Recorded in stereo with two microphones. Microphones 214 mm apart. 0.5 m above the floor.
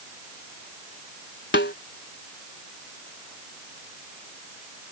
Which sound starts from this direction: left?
A snare drum, at 1.5 s.